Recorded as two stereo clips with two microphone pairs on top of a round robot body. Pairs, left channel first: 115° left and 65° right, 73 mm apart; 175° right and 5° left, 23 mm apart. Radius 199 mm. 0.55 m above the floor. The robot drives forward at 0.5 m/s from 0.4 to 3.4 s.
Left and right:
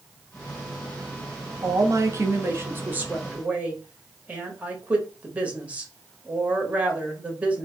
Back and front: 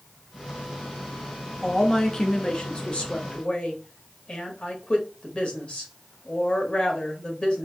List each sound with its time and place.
1.6 s a woman speaking: 90° right, 1.1 m; by 7.7 s 140° right, 1.4 m